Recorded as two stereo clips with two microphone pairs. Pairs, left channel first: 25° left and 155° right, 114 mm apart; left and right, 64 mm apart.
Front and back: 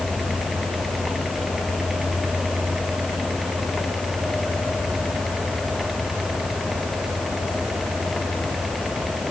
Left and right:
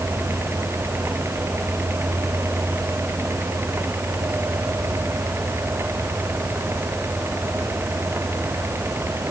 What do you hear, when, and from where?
Only background noise.